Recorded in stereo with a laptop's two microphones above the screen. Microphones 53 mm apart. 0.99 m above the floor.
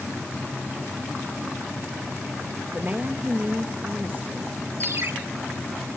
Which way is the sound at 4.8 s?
50° right (ahead or behind).